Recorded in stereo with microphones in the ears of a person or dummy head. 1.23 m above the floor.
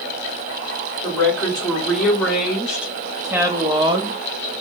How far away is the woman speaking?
About 1.8 m.